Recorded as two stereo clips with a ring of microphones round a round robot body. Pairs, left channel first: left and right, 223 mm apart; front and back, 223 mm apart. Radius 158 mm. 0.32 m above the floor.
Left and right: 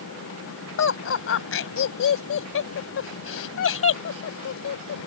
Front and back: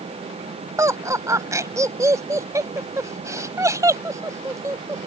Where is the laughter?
105° left.